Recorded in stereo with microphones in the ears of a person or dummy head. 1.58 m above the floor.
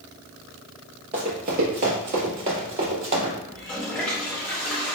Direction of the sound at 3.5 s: 5° left (ahead or behind).